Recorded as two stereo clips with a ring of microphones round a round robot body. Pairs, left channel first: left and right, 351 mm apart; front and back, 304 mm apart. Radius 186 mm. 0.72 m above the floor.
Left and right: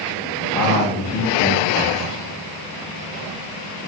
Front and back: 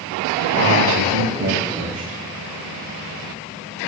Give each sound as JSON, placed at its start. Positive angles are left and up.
{"t": 0.5, "sound": "a man speaking", "azimuth_deg": 135, "distance_m": 3.5}